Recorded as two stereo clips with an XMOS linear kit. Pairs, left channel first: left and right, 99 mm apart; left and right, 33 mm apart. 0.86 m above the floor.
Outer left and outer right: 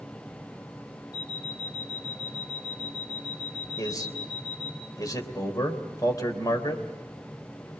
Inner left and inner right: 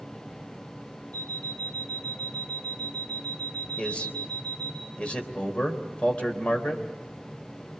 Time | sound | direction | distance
1.1 | an alarm clock | 35° left (ahead or behind) | 2.5 m
3.8 | a man speaking | 35° left (ahead or behind) | 3.5 m